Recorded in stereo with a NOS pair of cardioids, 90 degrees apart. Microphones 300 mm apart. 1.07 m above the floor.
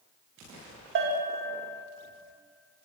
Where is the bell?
40° right, 1.2 m.